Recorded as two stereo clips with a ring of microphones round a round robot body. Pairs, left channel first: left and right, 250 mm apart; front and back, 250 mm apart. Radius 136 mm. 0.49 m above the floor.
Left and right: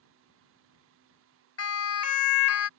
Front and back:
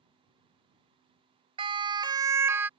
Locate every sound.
1.6 s a siren: 115° left; by 2.7 s 100° left